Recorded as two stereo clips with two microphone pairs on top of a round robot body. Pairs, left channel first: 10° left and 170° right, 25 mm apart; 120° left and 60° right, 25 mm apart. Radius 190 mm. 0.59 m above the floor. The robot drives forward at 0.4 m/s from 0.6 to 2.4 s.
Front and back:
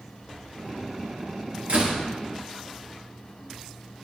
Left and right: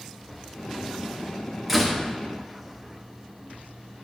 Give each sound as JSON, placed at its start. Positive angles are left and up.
{"t": 1.7, "sound": "a door slam", "azimuth_deg": -145, "distance_m": 1.4}